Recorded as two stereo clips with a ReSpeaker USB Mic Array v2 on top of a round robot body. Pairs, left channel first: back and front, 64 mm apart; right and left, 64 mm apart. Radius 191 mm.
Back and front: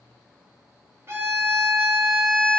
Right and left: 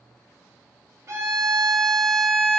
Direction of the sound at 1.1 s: 50° left.